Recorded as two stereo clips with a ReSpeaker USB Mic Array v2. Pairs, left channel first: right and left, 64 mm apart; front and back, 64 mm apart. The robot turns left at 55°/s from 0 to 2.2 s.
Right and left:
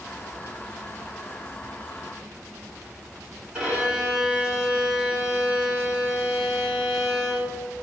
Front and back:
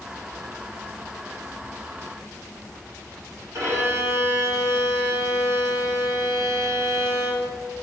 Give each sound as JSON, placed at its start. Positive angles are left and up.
{"t": 3.5, "sound": "a violin", "azimuth_deg": 165, "distance_m": 3.5}